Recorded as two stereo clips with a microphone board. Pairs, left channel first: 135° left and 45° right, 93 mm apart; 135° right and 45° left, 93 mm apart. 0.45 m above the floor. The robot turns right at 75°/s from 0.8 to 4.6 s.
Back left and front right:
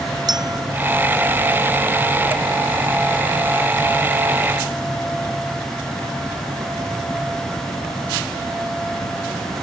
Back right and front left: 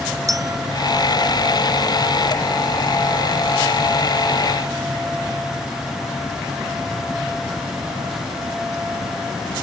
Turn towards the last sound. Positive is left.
turn(degrees=-80)